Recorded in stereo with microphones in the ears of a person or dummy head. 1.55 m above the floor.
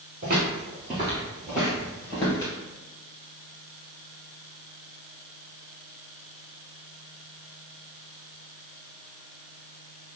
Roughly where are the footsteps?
Right.